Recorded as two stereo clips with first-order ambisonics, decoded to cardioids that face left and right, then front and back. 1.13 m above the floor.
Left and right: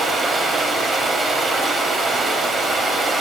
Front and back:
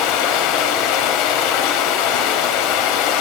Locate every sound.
0.0 s running water: 20° right, 4 m